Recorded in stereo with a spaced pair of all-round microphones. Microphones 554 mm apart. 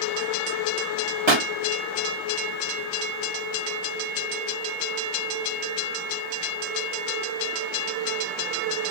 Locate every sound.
1.3 s a pop: 50° right (ahead or behind), 1.2 m